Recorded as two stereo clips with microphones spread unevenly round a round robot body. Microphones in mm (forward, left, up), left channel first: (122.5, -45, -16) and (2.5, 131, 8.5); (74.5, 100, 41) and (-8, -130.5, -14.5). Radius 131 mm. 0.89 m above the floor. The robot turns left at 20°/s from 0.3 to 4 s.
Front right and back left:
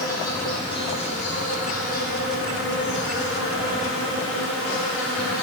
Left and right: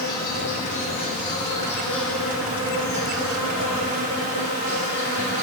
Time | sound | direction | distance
0.0 | an insect | 15° left | 3.5 m